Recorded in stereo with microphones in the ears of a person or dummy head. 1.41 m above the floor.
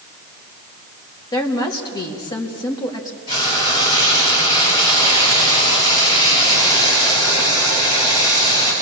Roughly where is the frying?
Left.